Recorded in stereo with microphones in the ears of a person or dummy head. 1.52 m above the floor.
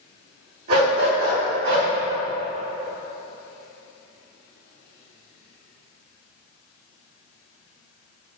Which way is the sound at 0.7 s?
50° right (ahead or behind).